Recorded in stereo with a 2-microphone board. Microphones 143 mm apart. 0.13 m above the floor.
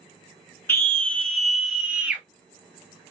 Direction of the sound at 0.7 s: 15° left (ahead or behind).